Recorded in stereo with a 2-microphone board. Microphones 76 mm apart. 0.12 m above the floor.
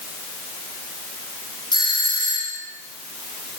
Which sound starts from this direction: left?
A doorbell, at 1.7 s.